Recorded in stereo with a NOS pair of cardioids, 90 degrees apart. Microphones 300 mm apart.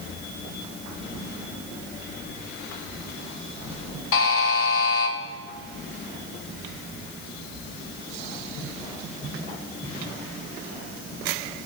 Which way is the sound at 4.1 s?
50° left.